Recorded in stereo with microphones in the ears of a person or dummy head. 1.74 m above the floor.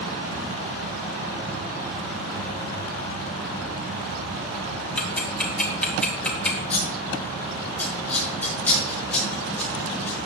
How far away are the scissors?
About 5 m.